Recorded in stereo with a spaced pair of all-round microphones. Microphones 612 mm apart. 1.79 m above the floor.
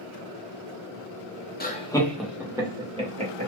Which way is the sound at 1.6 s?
15° left (ahead or behind).